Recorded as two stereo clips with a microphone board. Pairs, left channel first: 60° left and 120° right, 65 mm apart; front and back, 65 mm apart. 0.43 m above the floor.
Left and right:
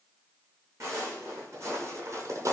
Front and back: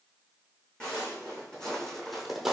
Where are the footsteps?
75° right, 1.7 m; by 2.5 s 100° right, 0.7 m.